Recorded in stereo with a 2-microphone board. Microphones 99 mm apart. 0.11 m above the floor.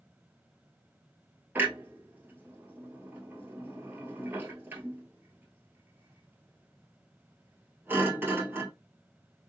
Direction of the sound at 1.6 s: 20° right (ahead or behind).